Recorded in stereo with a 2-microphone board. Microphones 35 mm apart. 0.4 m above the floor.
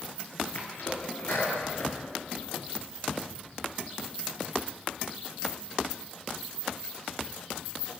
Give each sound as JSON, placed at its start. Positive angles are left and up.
{"t": 0.6, "sound": "a sneeze", "side_deg": 70, "distance_m": 7.5}